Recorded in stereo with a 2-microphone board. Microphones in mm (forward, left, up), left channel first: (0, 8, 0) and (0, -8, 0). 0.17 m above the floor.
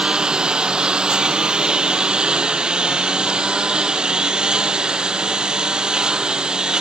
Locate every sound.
0.0 s a lawn mower: 70° right (ahead or behind); by 6.8 s 65° right (ahead or behind)